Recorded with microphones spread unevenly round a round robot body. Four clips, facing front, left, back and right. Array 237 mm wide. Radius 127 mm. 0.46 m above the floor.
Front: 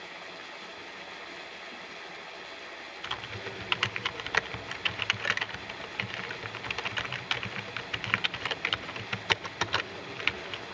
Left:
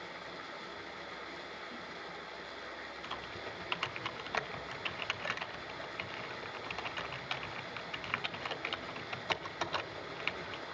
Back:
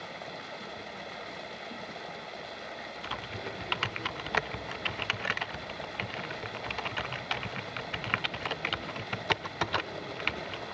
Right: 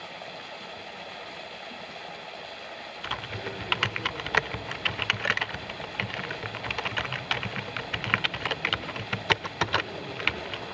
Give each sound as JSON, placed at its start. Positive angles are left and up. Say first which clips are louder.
{"t": 0.0, "sound": "running water", "louder": "right 5 dB, back 3 dB", "azimuth_deg": -155, "distance_m": 1.6}
{"t": 3.0, "sound": "typing on a keyboard", "louder": "right 10 dB, even", "azimuth_deg": -90, "distance_m": 0.8}